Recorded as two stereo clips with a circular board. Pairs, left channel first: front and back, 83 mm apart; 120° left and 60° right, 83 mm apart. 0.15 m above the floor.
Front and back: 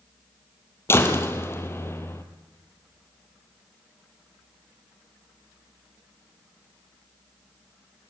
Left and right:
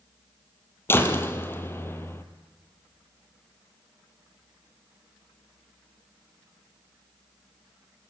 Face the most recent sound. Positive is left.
turn(degrees=60)